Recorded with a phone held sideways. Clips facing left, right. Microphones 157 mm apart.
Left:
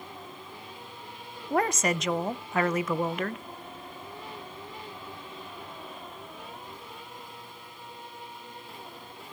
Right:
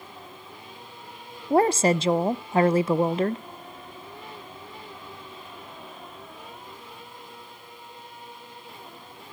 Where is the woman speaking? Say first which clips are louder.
Right 7 dB; 30° right (ahead or behind), 0.6 m.